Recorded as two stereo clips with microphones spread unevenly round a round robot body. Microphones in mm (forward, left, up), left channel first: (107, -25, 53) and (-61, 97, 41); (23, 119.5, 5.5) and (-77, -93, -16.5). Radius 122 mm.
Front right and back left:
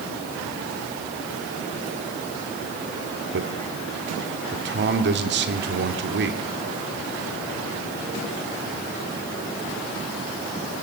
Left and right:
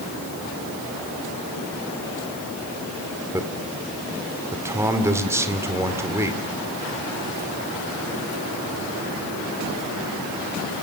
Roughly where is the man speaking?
Behind.